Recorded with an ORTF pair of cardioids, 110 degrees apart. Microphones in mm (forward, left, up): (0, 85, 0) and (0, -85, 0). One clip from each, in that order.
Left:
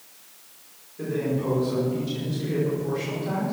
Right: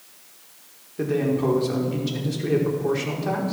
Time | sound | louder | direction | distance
1.0 | a man speaking | right 4 dB | 60° right | 5 m